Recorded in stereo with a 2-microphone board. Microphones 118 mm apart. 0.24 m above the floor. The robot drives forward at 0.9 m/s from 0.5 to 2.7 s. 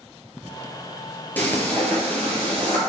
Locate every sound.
1.4 s frying: 15° left (ahead or behind), 3.5 m; by 2.8 s 10° left (ahead or behind), 4.5 m